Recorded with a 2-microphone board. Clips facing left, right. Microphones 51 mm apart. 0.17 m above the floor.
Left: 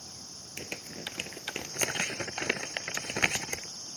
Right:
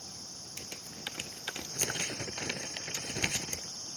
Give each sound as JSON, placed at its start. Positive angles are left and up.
{"t": 0.6, "sound": "crumpling", "side_deg": 55}